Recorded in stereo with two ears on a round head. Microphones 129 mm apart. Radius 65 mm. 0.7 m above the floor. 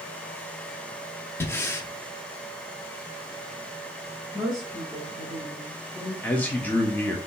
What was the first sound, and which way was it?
Breathing, 15° left (ahead or behind).